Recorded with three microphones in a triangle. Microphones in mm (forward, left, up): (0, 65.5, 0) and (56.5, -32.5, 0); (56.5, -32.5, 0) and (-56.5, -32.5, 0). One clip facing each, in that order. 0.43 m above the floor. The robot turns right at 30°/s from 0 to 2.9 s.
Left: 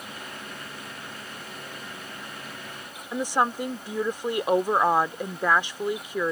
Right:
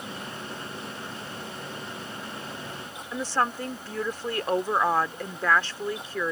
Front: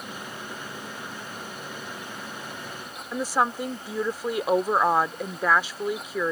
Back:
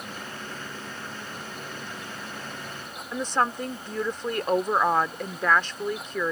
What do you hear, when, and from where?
3.1 s a woman speaking: 70° left